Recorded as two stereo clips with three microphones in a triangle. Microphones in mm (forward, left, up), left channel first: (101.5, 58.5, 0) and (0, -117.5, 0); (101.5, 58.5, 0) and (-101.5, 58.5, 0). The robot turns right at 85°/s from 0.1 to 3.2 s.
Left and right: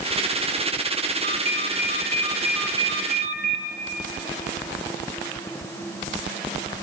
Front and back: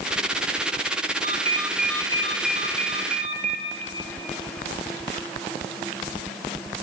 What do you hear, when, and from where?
1.2 s a ringtone: 140° right, 2.5 m; by 3.6 s 25° left, 2.5 m